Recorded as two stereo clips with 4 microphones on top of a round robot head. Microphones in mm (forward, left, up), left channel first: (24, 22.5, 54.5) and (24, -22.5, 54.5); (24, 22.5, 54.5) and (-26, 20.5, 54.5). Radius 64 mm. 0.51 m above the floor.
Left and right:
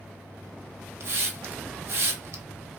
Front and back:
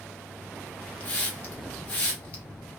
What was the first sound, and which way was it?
A hiss, 60° right.